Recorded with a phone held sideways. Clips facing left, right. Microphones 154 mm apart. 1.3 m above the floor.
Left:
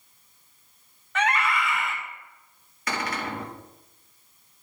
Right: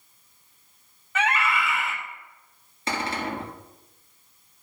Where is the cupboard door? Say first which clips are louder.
Right 2 dB; 30° right (ahead or behind), 1.7 m.